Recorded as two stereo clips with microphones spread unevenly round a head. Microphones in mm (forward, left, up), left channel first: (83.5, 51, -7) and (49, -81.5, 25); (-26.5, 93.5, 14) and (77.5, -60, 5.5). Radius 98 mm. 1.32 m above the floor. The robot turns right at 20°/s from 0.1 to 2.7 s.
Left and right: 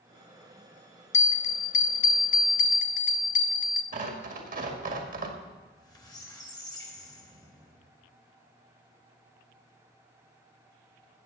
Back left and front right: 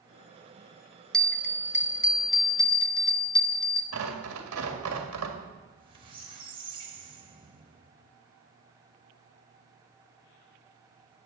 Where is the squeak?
5° left, 2.5 m.